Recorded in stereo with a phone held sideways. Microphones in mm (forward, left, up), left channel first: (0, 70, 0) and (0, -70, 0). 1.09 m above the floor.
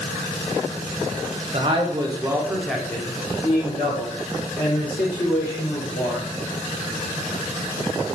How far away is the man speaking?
About 0.9 m.